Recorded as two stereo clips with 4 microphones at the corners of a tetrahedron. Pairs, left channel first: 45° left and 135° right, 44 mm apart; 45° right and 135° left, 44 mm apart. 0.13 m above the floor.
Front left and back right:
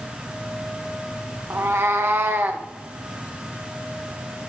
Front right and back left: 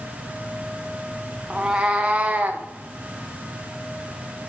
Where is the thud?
No thud in this recording.